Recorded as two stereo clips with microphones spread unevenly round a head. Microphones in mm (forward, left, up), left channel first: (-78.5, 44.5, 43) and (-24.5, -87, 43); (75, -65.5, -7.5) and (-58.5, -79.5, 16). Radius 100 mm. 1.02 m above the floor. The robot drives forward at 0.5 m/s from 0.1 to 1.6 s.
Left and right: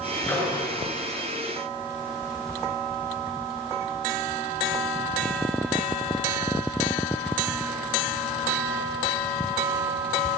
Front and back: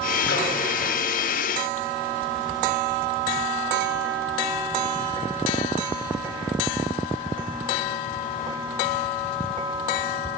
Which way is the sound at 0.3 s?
30° left.